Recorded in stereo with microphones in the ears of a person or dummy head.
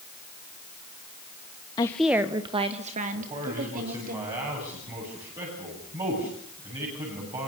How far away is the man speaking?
About 9 m.